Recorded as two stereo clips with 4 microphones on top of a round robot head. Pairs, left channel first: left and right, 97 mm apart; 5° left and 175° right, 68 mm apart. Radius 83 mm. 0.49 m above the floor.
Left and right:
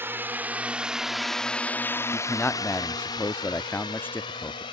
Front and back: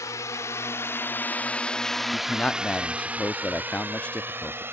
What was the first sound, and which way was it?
A drone, 30° right.